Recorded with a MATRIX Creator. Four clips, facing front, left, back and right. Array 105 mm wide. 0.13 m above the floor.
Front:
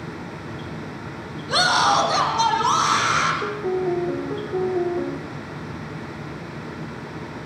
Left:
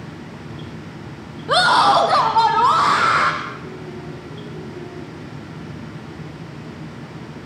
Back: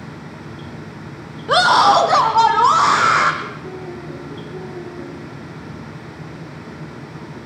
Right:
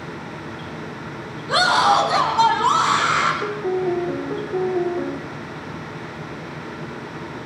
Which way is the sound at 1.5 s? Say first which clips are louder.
Left 3 dB, back 7 dB; 150° left.